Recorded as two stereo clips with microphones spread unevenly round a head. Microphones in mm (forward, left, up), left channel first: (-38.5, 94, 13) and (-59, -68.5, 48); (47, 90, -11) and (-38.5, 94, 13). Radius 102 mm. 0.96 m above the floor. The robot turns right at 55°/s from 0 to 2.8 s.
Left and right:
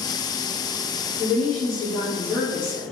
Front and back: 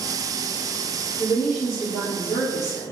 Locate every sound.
1.2 s a woman speaking: 50° right, 1.0 m; by 2.8 s 40° left, 1.0 m